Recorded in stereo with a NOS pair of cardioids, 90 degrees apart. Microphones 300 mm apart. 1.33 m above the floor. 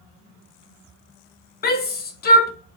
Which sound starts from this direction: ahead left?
A shout, at 1.6 s.